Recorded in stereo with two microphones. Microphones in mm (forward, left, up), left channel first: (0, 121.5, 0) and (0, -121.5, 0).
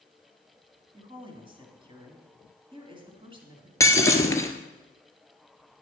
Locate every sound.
0.9 s a woman speaking: 20° right (ahead or behind), 2.5 m
3.8 s breaking glass: 15° left (ahead or behind), 1.4 m